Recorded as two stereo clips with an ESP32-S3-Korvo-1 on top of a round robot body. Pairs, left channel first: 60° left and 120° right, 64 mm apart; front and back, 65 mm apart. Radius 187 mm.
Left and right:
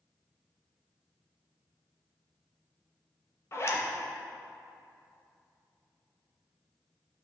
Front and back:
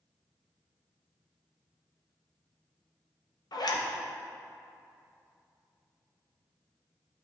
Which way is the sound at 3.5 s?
10° left.